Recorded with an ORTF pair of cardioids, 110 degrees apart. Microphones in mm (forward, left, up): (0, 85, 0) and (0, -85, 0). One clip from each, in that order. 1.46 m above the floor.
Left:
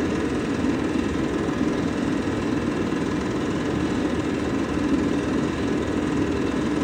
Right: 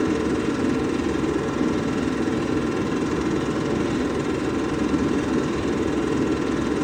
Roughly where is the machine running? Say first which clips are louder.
Right 2 dB; ahead.